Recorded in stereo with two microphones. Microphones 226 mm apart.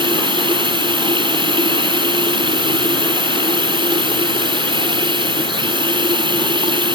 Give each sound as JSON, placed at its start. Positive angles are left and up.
{"t": 0.0, "sound": "running water", "side_deg": -20}